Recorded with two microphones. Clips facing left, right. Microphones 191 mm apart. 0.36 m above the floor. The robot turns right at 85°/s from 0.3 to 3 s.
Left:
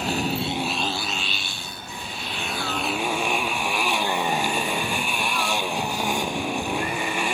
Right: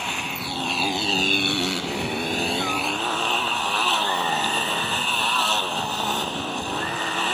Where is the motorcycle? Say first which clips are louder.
Left 7 dB; 140° left; by 7.3 s 10° left.